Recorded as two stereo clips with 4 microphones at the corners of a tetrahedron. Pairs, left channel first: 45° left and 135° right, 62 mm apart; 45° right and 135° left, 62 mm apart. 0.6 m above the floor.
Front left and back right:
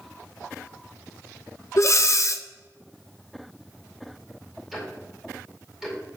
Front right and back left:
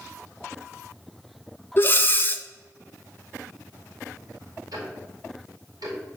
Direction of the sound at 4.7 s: 135° left.